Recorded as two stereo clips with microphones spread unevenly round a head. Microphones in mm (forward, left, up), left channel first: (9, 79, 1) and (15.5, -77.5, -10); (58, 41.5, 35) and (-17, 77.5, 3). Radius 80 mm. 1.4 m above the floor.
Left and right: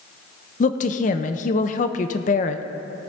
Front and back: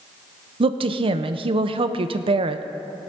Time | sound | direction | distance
0.6 | a woman speaking | 130° left | 0.7 m